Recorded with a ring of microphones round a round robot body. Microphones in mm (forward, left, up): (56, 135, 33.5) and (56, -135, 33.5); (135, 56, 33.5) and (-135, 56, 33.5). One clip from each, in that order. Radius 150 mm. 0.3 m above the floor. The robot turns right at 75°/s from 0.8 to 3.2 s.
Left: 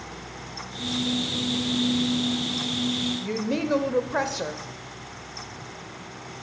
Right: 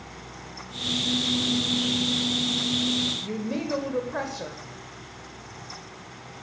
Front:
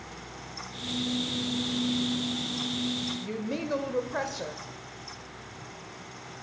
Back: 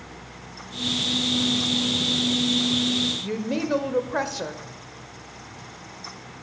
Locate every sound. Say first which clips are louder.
3.2 s a woman speaking: left 3 dB, back 6 dB; 115° left, 0.9 m